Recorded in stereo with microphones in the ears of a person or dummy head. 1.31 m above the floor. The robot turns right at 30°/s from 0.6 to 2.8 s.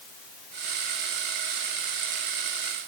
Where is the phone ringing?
No phone ringing in this recording.